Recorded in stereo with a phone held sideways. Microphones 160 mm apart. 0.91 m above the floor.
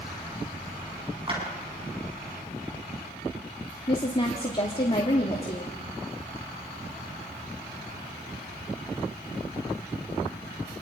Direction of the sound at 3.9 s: 35° left (ahead or behind).